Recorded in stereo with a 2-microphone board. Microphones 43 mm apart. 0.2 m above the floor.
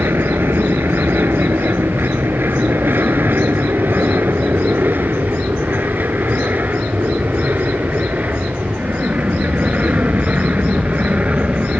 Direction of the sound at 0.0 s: 60° right (ahead or behind).